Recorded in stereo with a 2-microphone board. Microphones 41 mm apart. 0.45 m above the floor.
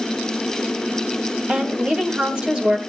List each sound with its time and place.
1.5 s a woman speaking: 25° right (ahead or behind), 2.5 m